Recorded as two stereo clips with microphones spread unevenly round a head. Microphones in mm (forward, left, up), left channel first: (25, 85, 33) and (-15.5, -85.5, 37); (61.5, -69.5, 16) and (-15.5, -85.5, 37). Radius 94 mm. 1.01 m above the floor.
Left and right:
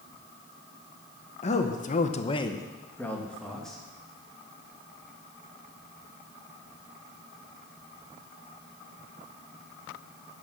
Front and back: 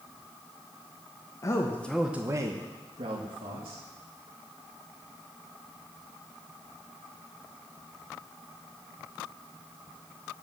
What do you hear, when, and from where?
1.4 s a man speaking: 35° left, 1.2 m; by 3.8 s 165° left, 2.5 m